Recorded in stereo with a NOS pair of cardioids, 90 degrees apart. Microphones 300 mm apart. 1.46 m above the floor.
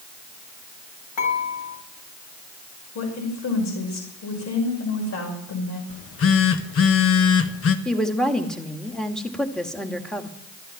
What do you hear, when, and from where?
1.2 s dishes clattering: 70° left, 6 m
3.0 s a woman speaking: 65° left, 5.5 m
5.9 s a phone buzzing: 50° left, 1.4 m
7.8 s a woman speaking: straight ahead, 2 m